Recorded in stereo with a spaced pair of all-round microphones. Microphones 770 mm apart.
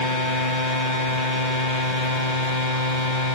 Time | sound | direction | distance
0.0 | a machine running | 70° left (ahead or behind) | ?